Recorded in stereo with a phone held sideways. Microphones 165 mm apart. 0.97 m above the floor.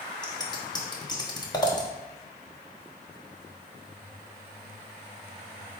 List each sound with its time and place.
0.2 s scissors: 25° left (ahead or behind), 1.0 m